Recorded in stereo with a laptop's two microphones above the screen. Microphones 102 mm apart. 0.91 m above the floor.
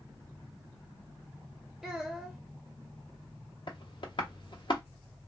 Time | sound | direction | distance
1.8 | a child speaking | centre (ahead or behind) | 0.6 m
3.7 | tapping | 50° left (ahead or behind) | 0.8 m